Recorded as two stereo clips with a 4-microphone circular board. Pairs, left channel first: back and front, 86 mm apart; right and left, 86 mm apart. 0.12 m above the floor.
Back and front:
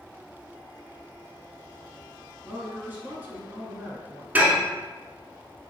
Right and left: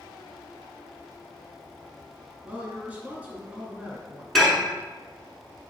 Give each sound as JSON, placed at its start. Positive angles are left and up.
{"t": 2.4, "sound": "a woman speaking", "azimuth_deg": 40, "distance_m": 1.4}
{"t": 4.3, "sound": "dishes clattering", "azimuth_deg": -5, "distance_m": 0.9}